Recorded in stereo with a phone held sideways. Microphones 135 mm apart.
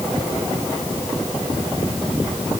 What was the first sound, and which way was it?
Only background noise.